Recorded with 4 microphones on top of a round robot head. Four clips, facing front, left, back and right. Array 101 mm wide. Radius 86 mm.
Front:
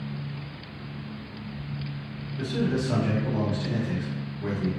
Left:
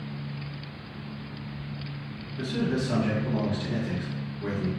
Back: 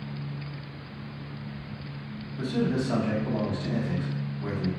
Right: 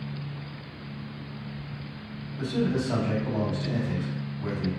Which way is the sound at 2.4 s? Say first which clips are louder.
Right 1 dB, even; 70° left.